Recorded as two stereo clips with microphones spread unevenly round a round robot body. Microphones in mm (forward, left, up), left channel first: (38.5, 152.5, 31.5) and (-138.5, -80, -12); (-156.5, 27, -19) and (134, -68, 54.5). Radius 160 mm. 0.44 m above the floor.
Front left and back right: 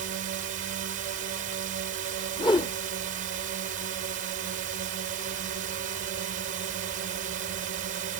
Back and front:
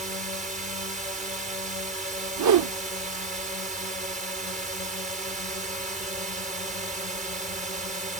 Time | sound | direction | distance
0.0 | a drone | 90° right | ?
2.4 | a whoosh | 25° right | ?